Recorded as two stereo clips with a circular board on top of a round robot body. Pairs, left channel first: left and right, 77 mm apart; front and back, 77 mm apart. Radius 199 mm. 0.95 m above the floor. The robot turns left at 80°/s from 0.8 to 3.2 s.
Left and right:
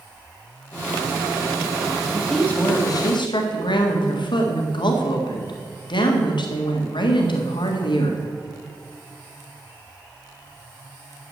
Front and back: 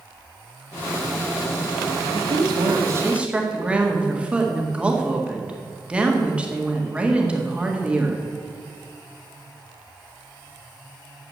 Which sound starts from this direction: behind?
A woman speaking, at 2.1 s.